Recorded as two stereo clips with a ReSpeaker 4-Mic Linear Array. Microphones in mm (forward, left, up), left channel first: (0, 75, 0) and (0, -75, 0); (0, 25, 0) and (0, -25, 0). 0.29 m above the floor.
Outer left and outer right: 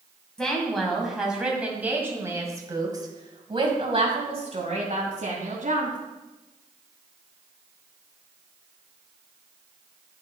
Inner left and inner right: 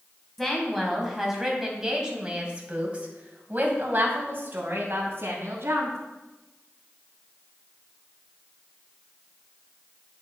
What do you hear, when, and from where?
0.4 s a woman speaking: 5° left (ahead or behind), 2.5 m; by 6.0 s 55° right (ahead or behind), 2.5 m